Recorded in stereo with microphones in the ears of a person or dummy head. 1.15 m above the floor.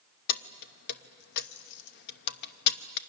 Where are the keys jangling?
55° left (ahead or behind), 0.7 m.